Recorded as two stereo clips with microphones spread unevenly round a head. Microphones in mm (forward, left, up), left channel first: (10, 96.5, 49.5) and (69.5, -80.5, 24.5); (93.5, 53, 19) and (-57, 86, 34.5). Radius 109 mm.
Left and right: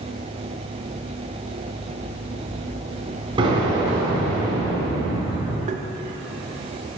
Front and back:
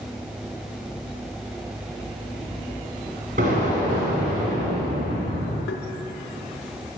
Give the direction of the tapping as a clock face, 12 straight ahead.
1 o'clock.